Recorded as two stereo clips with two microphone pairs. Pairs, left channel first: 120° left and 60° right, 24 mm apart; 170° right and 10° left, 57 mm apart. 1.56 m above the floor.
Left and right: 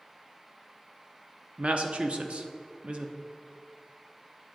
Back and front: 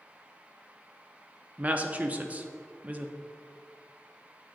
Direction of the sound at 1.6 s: 50° right.